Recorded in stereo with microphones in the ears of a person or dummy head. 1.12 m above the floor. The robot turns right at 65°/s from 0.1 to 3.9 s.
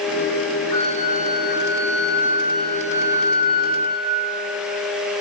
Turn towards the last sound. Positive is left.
turn(degrees=-110)